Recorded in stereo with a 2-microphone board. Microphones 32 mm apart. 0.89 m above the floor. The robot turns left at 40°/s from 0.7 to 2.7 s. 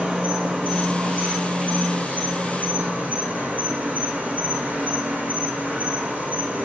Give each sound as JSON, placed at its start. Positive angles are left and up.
{"t": 0.0, "sound": "an insect", "azimuth_deg": -45, "distance_m": 4.0}